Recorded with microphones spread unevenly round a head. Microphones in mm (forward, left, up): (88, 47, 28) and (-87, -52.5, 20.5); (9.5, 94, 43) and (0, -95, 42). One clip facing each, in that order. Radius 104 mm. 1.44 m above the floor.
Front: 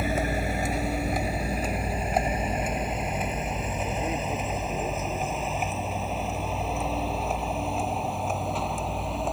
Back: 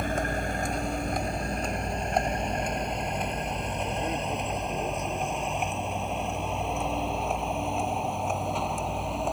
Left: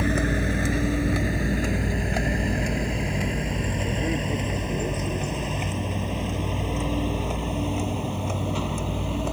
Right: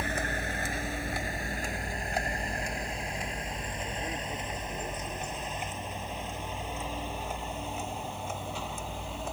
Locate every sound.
0.0 s a vehicle: 115° left; by 9.3 s 120° left